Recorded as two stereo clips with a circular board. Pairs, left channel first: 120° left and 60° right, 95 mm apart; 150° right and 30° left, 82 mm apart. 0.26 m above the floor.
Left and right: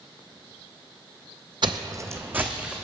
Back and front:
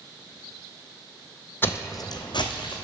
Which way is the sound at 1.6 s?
90° right.